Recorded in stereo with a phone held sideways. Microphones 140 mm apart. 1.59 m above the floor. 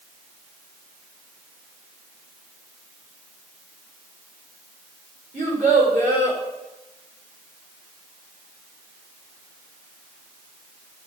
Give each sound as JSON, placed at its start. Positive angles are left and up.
{"t": 5.3, "sound": "a child speaking", "side_deg": -60, "distance_m": 4.0}